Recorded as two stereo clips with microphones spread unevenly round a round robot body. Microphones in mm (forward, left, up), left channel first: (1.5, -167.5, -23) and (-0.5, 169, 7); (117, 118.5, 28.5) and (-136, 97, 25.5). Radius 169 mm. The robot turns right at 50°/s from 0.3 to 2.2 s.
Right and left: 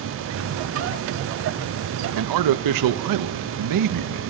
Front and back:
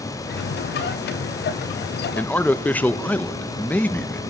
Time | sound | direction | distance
2.1 | a man speaking | 85° left | 0.6 m